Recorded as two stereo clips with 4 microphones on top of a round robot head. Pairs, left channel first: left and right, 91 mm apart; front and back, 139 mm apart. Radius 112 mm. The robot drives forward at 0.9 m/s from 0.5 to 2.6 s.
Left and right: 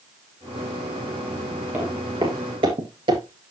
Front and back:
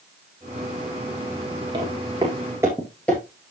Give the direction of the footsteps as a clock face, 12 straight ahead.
5 o'clock.